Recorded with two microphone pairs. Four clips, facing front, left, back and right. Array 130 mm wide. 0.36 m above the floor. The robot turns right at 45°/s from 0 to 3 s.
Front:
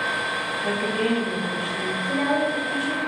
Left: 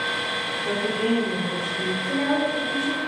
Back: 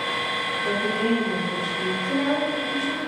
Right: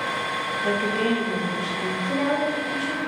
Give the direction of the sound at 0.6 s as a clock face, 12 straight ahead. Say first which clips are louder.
Right 1 dB, even; 2 o'clock.